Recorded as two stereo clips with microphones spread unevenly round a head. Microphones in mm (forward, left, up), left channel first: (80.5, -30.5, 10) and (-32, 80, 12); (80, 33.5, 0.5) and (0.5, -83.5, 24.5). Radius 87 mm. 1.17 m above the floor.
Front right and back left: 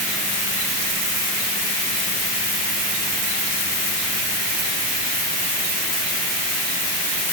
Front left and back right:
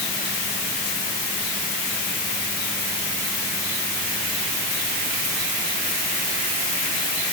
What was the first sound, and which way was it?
Only background noise.